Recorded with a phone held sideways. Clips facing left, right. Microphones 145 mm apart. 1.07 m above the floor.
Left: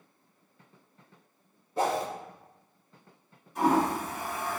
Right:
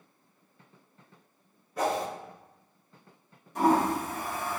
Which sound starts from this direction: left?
A whoosh, at 1.8 s.